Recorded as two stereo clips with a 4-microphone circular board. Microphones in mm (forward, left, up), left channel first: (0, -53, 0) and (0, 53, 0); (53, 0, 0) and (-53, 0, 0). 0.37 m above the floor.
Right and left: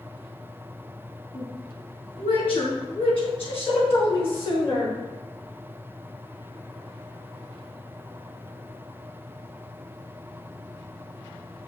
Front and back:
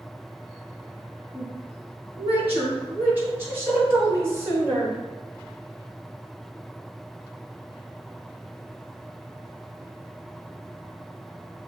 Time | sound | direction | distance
1.3 | a woman speaking | 105° right | 3 m